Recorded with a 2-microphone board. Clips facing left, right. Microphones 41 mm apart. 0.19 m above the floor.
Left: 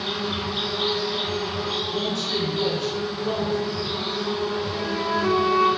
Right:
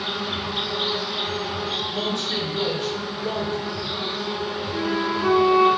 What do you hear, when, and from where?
0.0 s an insect: 15° right (ahead or behind), 1.0 m
1.9 s a man speaking: 15° right (ahead or behind), 1.4 m
4.7 s a flute: 15° right (ahead or behind), 0.7 m